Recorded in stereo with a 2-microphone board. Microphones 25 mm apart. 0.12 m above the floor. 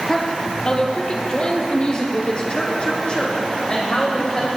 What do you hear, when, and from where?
0.1 s a woman speaking: 35° left (ahead or behind), 2 m; by 4.5 s 45° left (ahead or behind), 6 m